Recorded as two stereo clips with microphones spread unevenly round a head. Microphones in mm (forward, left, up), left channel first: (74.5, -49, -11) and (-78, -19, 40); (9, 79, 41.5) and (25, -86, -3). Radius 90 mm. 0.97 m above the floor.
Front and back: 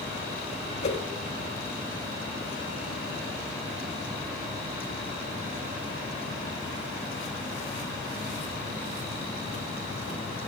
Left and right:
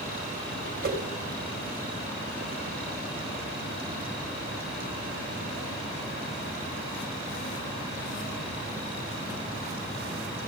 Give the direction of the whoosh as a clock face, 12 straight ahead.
2 o'clock.